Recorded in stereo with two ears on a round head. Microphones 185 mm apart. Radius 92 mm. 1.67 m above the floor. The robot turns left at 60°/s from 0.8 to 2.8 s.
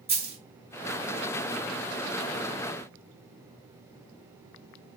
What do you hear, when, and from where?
0.1 s a dropped coin: 30° right (ahead or behind), 1.7 m